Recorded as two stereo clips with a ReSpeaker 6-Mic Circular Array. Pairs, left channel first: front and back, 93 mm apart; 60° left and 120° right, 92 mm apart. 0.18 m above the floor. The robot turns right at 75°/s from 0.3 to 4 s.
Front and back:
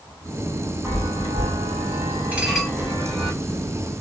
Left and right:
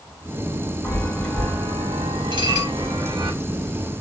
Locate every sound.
0.8 s a chime: 115° left, 3.5 m; by 3.3 s 60° right, 3.5 m
2.3 s dishes clattering: 110° right, 2 m; by 2.7 s 75° right, 2 m